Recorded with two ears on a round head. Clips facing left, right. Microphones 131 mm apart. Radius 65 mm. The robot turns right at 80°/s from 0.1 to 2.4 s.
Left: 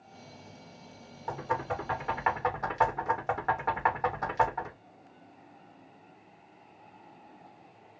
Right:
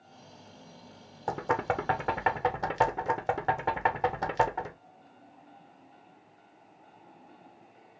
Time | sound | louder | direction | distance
1.3 | knocking | right 3 dB | 55° right (ahead or behind) | 1.0 m